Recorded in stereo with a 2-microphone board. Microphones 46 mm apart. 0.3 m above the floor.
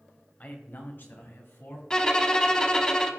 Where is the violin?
15° left (ahead or behind), 0.9 m.